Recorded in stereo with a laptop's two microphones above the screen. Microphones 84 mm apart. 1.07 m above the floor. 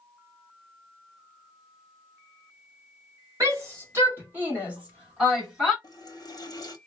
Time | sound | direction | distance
3.4 | a shout | 40° right (ahead or behind) | 1.6 m
5.8 | a running tap | 45° left (ahead or behind) | 1.0 m